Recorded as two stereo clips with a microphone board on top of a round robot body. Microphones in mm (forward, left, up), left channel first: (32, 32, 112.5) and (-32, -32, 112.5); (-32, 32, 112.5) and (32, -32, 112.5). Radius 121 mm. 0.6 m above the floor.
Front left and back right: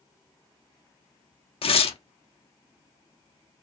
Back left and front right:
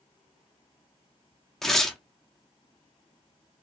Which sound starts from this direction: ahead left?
Tearing paper, at 1.6 s.